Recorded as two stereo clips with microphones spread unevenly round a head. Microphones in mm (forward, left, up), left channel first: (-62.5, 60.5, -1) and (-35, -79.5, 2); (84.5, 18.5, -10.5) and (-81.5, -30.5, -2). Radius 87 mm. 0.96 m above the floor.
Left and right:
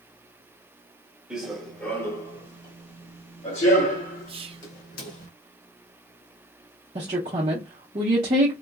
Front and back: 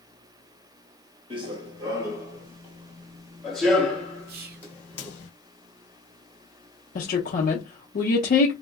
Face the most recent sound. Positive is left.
turn(degrees=-25)